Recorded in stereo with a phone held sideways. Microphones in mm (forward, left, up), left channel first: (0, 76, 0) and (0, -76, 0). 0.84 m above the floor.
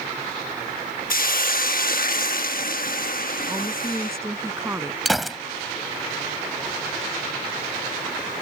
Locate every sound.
1.1 s a hiss: 60° left (ahead or behind)
3.5 s a woman speaking: 15° right (ahead or behind)
5.0 s a gunshot: centre (ahead or behind)